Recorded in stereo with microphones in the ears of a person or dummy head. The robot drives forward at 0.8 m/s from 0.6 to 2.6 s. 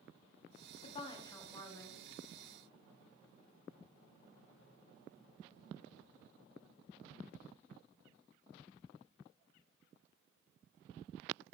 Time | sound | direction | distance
0.8 | a woman speaking | 40° left (ahead or behind) | 0.9 m